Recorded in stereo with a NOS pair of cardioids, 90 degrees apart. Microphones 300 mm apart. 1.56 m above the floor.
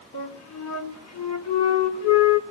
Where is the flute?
60° left, 4.5 m.